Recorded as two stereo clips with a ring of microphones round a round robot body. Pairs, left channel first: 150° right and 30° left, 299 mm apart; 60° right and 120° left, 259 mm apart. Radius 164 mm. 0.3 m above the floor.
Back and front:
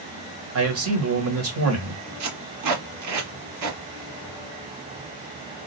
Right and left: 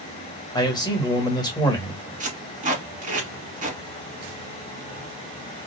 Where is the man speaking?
10° left, 1.5 m.